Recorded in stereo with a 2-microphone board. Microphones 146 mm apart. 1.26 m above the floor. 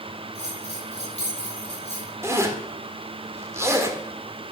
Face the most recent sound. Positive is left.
turn(degrees=-20)  # may be behind; listen again after turning